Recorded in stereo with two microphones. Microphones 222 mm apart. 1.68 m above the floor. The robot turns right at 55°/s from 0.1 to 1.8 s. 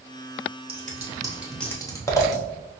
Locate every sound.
0.7 s scissors: 45° right (ahead or behind), 0.8 m; by 2.4 s 15° left (ahead or behind), 0.8 m